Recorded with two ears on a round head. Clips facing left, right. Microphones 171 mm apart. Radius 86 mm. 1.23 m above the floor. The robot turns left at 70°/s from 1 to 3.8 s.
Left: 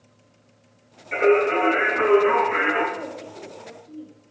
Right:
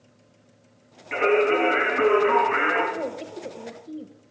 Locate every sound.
1.1 s singing: 75° right, 4.5 m; by 2.8 s 165° left, 4.5 m
2.9 s a woman speaking: 50° right, 0.8 m; by 4.1 s 110° right, 0.8 m